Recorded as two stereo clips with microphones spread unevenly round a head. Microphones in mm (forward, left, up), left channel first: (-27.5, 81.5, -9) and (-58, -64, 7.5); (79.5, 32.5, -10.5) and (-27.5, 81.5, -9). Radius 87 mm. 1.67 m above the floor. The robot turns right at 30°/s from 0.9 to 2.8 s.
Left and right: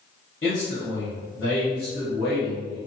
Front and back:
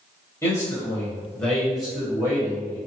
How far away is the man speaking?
About 1.3 m.